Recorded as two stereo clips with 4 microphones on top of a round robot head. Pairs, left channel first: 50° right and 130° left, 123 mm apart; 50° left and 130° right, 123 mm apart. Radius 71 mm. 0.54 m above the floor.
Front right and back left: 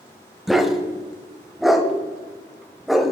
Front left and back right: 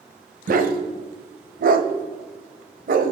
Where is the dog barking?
140° right, 1.1 m.